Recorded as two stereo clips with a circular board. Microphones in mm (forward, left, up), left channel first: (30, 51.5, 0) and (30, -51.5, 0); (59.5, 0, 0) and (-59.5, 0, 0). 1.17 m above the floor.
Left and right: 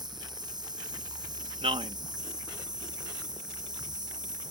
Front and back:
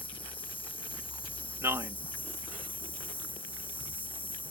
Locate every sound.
0.0 s an insect: 40° right
1.6 s a man speaking: 110° right